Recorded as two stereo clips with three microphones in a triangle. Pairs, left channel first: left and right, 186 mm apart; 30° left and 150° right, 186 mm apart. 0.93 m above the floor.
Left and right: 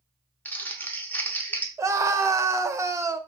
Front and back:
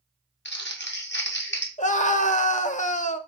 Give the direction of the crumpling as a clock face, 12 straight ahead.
12 o'clock.